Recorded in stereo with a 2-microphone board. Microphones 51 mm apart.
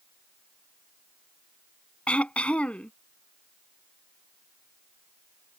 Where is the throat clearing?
25° left (ahead or behind).